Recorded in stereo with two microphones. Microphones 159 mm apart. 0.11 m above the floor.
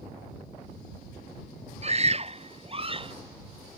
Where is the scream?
45° right (ahead or behind); by 3.1 s 35° right (ahead or behind).